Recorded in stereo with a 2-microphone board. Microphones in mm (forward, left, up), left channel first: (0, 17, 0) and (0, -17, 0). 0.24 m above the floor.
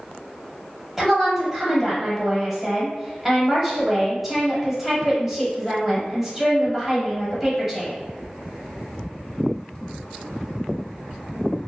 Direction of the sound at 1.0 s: 5° right (ahead or behind).